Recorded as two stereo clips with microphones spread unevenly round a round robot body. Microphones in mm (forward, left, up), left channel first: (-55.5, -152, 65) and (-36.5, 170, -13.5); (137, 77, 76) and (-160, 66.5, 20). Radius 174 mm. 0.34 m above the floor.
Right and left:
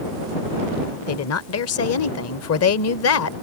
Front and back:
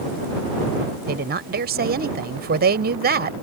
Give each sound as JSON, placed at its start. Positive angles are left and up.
{"t": 1.1, "sound": "a woman speaking", "azimuth_deg": -140}